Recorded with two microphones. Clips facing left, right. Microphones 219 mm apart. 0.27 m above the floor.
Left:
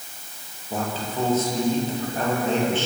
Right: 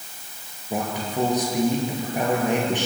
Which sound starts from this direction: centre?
A man speaking, at 0.7 s.